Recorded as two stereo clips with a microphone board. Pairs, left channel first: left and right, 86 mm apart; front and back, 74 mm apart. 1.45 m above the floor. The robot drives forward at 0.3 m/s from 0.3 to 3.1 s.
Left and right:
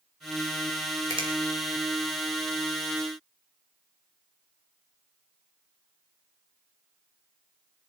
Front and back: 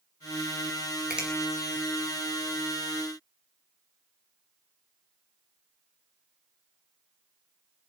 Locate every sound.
1.1 s a finger snap: 105° right, 2.5 m